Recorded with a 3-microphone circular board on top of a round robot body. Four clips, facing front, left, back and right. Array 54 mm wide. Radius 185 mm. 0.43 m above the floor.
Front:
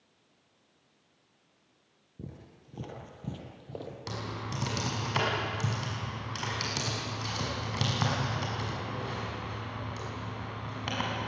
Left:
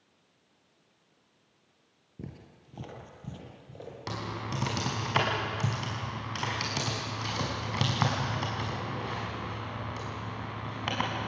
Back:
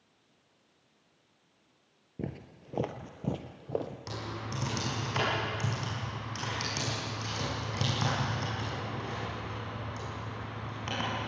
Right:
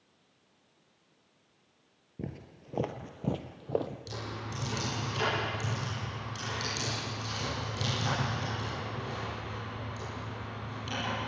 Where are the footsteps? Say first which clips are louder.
Right 4 dB, back 7 dB; 170° right, 0.6 m; by 4.0 s 120° right, 1.2 m.